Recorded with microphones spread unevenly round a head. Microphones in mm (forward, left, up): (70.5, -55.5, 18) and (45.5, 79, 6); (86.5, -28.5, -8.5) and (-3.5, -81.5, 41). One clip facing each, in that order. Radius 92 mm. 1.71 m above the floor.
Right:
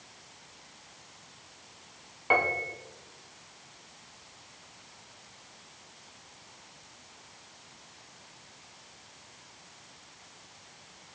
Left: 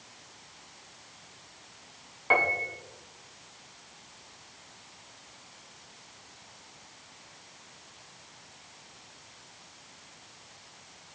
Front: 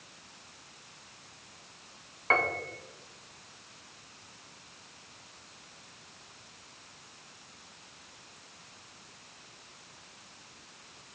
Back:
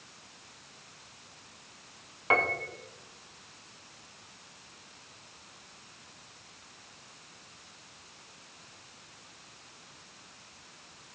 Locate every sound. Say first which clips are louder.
2.3 s a piano: even, back 1 dB; 155° right, 0.6 m